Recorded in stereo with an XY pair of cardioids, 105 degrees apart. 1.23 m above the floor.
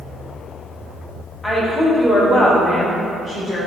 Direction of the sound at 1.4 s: 20° left.